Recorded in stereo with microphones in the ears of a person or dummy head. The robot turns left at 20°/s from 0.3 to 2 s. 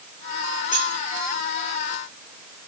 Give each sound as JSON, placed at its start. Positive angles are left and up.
{"t": 0.7, "sound": "keys jangling", "side_deg": 45, "distance_m": 6.0}